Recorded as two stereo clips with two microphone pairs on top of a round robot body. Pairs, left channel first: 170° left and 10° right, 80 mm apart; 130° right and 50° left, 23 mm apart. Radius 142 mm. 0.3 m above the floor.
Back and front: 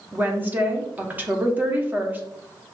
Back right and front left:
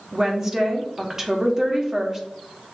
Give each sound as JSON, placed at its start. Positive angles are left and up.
{"t": 0.1, "sound": "a woman speaking", "azimuth_deg": 5, "distance_m": 1.3}